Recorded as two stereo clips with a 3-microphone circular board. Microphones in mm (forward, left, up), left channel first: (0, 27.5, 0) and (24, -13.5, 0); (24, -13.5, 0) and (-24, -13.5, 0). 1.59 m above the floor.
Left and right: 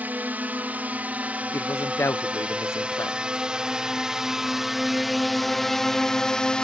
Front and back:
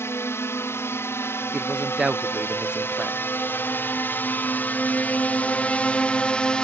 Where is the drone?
10° right; by 6.7 s 55° left.